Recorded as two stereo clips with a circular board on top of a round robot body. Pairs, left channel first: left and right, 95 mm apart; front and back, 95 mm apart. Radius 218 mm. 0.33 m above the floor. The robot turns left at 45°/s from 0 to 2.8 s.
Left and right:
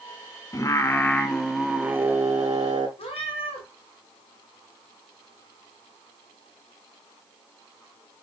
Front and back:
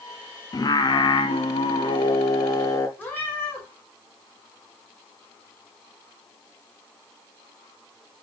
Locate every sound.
0.5 s singing: 40° left, 1.0 m; by 2.9 s 60° right, 1.0 m
3.0 s a cat meowing: 70° left, 2.0 m